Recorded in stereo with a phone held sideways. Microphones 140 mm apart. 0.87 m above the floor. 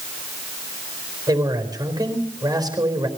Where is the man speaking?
25° right (ahead or behind), 4 m.